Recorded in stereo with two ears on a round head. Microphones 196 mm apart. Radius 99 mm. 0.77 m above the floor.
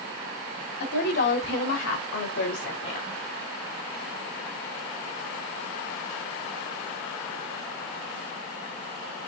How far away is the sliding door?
No sliding door in this recording.